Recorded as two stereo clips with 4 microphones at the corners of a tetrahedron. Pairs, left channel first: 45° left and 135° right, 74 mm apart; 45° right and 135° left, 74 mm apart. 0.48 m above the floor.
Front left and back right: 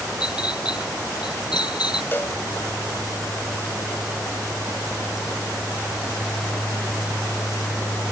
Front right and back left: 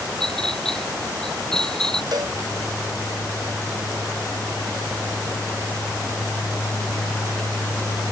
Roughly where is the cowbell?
Left.